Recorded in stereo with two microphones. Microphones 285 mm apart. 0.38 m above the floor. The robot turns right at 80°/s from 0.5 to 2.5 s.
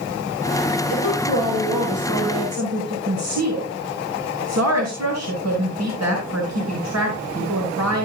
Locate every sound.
0.9 s a woman speaking: 120° left, 5 m; by 8.1 s 110° right, 5 m